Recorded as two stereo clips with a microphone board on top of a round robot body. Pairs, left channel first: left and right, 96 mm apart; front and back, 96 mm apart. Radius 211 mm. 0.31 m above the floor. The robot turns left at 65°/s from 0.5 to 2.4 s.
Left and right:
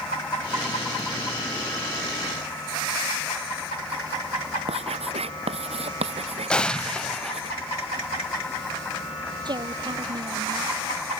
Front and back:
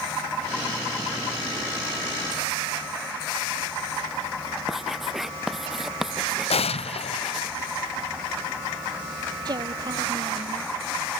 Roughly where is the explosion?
Ahead.